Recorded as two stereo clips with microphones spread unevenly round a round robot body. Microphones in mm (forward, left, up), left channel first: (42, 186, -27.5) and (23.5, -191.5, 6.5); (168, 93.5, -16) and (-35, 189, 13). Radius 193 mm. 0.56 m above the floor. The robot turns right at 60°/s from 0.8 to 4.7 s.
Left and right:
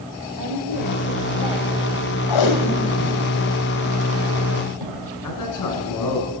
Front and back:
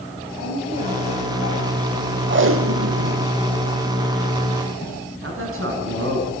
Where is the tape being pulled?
115° left, 3 m; by 5.0 s 100° right, 3 m.